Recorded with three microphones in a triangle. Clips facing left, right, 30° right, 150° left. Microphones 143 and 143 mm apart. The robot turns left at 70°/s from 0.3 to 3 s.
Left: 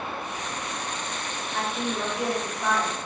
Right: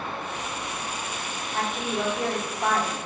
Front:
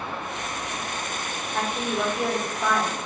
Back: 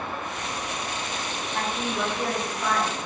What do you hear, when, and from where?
1.5 s a woman speaking: 5° right, 1.4 m; by 3.0 s 105° right, 1.4 m